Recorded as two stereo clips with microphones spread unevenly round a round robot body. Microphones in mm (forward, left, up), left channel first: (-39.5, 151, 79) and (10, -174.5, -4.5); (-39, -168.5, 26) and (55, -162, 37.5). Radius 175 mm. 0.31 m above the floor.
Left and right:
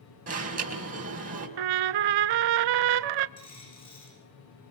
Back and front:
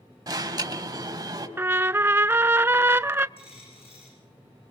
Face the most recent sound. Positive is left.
turn(degrees=170)